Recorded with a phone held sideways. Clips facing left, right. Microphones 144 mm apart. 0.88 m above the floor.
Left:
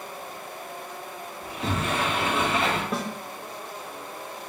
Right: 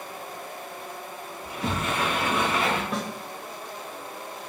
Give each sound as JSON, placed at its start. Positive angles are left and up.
{"t": 1.4, "sound": "a sliding door", "side_deg": 30, "distance_m": 1.9}
{"t": 2.9, "sound": "a snare drum", "side_deg": 5, "distance_m": 1.0}